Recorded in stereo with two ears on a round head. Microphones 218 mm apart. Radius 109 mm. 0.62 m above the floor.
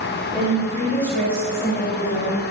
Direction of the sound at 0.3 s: Centre (ahead or behind).